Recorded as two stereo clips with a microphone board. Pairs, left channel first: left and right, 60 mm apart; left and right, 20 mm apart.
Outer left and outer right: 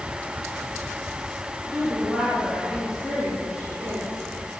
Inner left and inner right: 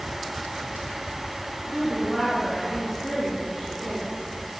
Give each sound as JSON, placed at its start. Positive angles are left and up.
{"t": 1.7, "sound": "a woman speaking", "side_deg": -10, "distance_m": 8.5}